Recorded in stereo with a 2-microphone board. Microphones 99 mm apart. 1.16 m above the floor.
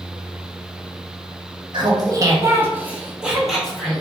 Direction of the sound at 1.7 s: 55° right (ahead or behind).